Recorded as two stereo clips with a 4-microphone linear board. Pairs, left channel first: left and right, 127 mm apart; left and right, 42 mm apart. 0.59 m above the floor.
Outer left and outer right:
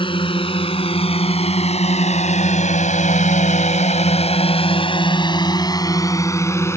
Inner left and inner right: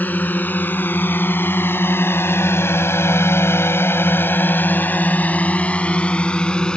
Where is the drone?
45° left (ahead or behind); by 6.8 s 20° left (ahead or behind).